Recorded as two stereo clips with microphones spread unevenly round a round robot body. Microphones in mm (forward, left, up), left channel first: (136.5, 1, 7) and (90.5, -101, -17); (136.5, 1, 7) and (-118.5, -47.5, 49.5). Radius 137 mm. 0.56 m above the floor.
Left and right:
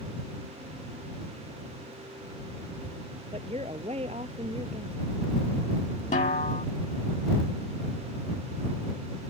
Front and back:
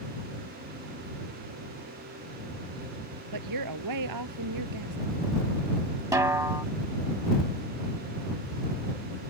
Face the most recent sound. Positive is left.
turn(degrees=110)